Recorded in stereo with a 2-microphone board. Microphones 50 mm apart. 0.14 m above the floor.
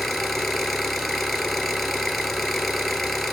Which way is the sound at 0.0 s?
Centre (ahead or behind).